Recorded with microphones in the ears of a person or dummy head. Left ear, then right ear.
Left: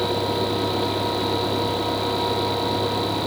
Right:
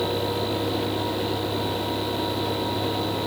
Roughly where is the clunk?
I don't hear a clunk.